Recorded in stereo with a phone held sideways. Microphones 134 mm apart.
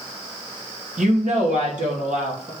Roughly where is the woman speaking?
Right.